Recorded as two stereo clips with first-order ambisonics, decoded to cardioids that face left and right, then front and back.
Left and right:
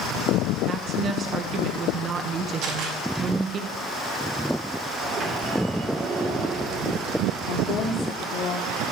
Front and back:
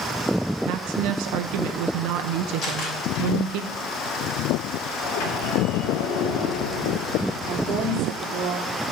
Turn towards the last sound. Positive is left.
turn(degrees=135)